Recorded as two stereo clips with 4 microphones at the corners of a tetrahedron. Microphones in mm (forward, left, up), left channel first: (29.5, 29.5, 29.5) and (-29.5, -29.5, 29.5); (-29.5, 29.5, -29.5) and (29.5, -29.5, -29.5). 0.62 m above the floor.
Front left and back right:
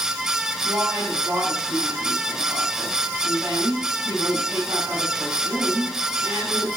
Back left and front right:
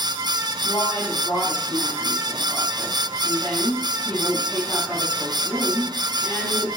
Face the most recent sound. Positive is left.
turn(degrees=180)